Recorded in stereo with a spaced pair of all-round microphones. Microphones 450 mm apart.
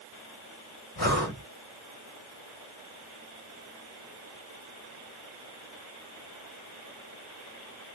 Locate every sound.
1.0 s breathing: 50° left (ahead or behind), 2.5 m